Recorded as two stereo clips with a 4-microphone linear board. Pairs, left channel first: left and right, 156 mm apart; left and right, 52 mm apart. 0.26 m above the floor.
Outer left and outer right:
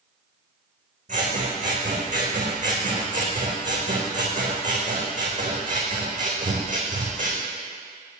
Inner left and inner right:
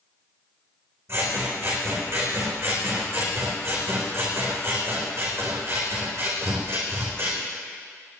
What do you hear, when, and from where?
1.1 s scissors: 50° right (ahead or behind), 3.5 m